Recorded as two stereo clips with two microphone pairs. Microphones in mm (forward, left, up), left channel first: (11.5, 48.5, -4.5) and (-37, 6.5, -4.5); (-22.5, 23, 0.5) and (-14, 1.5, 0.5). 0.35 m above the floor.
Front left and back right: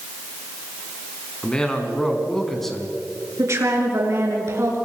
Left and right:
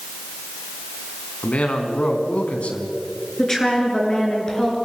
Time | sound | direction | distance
1.4 | a man speaking | 115° left | 4 m
3.4 | a woman speaking | straight behind | 5.5 m